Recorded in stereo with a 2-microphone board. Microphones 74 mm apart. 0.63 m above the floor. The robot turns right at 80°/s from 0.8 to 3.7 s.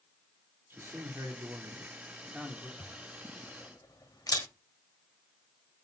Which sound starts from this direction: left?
A camera shutter, at 2.8 s.